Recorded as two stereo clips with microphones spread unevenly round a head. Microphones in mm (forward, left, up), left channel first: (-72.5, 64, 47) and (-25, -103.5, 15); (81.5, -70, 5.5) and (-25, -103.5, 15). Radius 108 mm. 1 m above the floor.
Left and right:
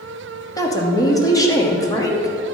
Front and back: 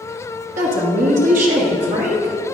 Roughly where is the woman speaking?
Behind.